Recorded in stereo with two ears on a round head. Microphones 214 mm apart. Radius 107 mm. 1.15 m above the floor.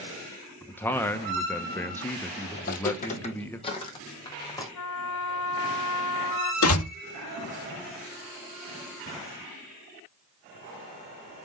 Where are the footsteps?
40° left (ahead or behind), 2.5 m; by 4.7 s 15° left (ahead or behind), 4.5 m.